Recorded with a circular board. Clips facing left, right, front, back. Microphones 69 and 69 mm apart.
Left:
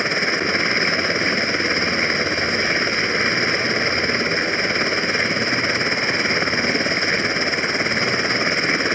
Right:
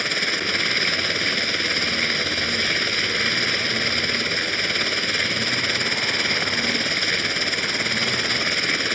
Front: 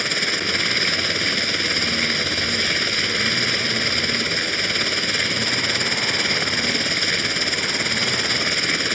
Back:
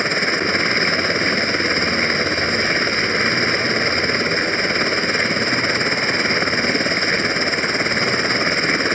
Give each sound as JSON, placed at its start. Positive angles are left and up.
{"t": 0.0, "sound": "a helicopter", "azimuth_deg": 140}